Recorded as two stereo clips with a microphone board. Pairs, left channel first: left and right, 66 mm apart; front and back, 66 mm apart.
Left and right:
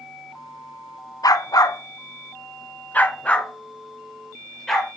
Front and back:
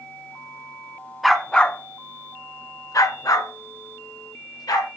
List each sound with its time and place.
1.2 s a dog barking: 90° left, 0.8 m; by 4.9 s 5° left, 2 m